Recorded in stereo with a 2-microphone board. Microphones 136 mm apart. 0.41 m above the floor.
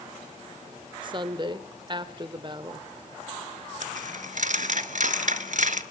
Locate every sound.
1.0 s a woman speaking: 35° right (ahead or behind), 1.0 m
3.8 s a dropped coin: 70° right (ahead or behind), 0.8 m